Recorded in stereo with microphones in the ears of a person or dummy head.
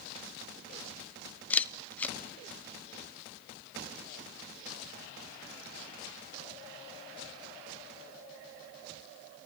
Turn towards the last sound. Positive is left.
turn(degrees=15)  # may be behind; listen again after turning